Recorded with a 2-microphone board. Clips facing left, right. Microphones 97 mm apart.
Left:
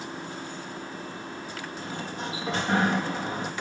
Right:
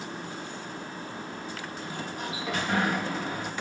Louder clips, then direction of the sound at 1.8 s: Left 2 dB; 30° left (ahead or behind).